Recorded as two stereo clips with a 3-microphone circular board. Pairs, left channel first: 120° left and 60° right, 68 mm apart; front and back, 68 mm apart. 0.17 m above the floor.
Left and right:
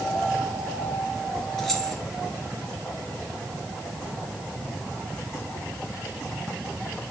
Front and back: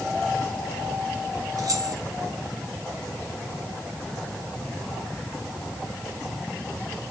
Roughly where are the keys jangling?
Behind right.